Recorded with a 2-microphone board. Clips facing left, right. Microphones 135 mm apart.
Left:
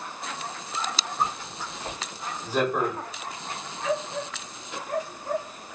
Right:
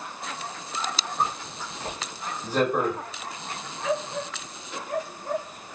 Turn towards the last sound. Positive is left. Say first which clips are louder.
# right 1 dB
turn(degrees=-60)  # may be behind; listen again after turning